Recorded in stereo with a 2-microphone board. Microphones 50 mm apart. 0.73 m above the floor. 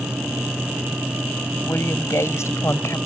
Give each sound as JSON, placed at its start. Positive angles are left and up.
{"t": 1.6, "sound": "a woman speaking", "side_deg": 70}